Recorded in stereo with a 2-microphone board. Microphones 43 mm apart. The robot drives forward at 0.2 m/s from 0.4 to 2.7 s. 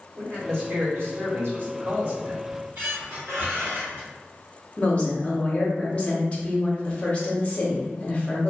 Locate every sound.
0.1 s a man speaking: 65° right (ahead or behind), 1.6 m; by 2.4 s 55° right (ahead or behind), 1.7 m
2.5 s a squeak: 60° right (ahead or behind), 1.6 m; by 4.1 s 55° right (ahead or behind), 1.6 m
4.8 s a woman speaking: 30° left (ahead or behind), 0.9 m